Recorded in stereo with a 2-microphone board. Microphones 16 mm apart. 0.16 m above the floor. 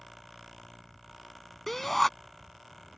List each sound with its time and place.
1.7 s a shout: 10° left (ahead or behind)